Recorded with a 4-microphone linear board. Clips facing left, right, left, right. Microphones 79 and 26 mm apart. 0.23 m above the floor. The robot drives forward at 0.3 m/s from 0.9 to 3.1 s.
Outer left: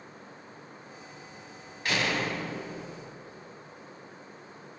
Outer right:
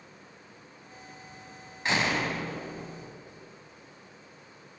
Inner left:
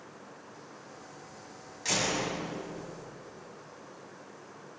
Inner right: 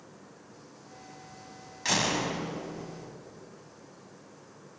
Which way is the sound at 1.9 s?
25° right (ahead or behind).